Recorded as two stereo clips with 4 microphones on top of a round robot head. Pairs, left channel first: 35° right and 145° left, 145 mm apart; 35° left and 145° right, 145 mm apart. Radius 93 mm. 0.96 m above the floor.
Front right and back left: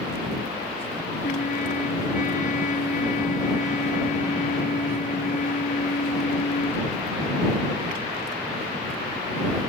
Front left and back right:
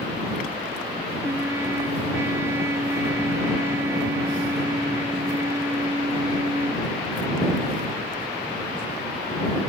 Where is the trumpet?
70° right.